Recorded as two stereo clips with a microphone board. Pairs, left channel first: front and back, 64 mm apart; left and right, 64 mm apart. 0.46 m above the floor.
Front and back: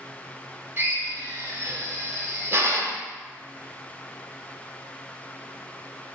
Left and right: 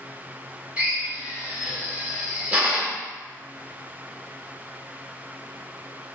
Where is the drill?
150° right, 0.7 m.